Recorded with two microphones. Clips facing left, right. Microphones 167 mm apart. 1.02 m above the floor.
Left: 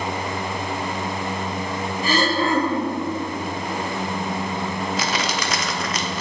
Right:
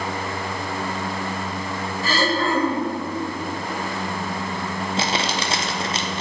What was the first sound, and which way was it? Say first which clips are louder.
Throat clearing: left 1 dB; 20° left (ahead or behind).